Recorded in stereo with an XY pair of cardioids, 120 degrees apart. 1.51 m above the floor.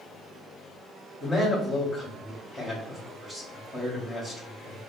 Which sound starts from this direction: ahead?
A man speaking, at 1.2 s.